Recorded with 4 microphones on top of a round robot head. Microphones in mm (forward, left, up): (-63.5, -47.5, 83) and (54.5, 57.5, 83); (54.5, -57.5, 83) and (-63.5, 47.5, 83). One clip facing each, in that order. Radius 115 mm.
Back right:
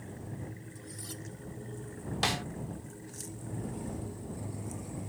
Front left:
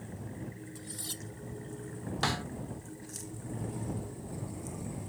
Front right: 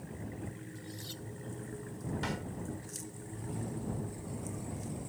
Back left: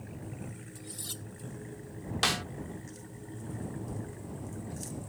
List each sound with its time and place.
0.8 s cutlery clinking: 100° left
2.2 s a snare drum: 150° left